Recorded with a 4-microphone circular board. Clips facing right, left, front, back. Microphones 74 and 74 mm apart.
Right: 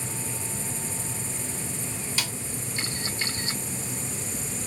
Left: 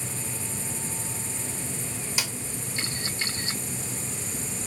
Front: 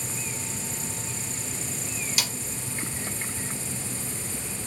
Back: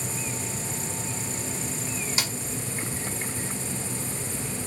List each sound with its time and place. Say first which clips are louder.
2.2 s a snare drum: even, even; 150° left, 1.0 m